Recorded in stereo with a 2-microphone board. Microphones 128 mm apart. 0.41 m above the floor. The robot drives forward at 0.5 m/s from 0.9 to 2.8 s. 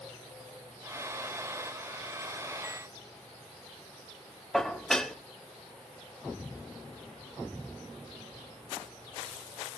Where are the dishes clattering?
5° left (ahead or behind), 1.0 m.